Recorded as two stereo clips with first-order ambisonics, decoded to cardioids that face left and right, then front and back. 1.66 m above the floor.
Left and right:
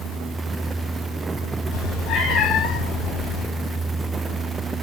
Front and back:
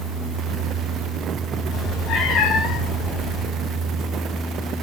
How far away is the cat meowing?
About 3 m.